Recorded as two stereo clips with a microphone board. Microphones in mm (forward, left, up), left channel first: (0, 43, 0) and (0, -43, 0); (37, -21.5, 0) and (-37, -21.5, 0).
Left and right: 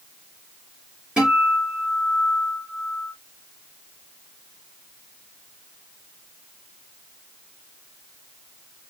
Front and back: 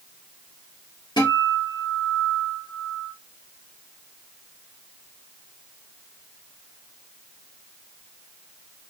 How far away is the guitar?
About 2.5 m.